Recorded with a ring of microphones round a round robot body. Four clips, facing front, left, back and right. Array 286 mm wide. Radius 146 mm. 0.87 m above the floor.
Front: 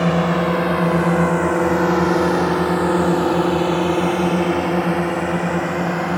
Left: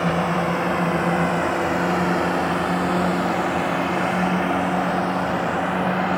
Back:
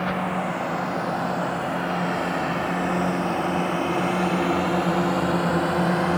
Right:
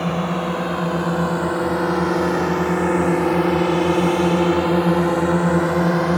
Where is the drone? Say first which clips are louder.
Left 1 dB, front 8 dB; 5° right; by 6.2 s 90° right.